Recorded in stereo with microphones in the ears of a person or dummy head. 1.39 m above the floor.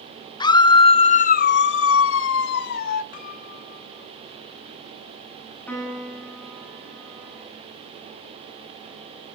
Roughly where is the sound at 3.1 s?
Left.